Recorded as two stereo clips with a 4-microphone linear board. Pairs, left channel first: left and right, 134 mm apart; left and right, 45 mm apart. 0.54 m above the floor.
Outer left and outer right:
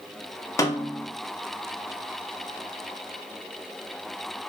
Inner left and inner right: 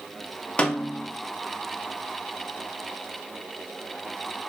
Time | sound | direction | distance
0.6 | a snare drum | 25° left (ahead or behind) | 0.5 m